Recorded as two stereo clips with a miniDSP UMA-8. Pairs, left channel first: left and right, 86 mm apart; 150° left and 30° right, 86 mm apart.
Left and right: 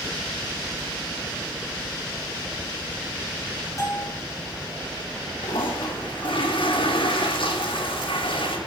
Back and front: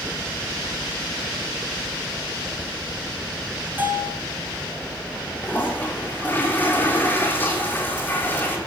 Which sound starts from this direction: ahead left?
A bell, at 3.8 s.